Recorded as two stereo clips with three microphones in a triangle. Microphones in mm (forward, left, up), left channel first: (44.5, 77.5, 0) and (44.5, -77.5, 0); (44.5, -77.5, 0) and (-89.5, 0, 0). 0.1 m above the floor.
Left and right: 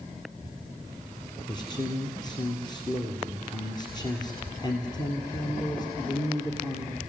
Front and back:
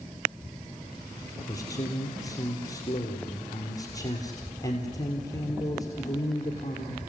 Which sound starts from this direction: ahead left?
A man speaking, at 1.5 s.